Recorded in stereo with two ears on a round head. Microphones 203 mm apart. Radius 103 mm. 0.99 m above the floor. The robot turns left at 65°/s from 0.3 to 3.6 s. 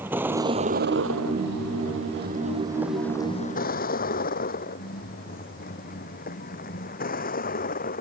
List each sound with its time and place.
0.0 s a vehicle: 10° right (ahead or behind); by 8.0 s 40° left (ahead or behind)